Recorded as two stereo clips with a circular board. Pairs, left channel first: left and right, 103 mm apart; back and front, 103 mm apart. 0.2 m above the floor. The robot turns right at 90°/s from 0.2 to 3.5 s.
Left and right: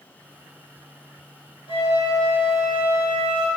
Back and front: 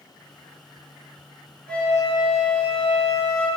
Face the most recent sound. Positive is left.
turn(degrees=-95)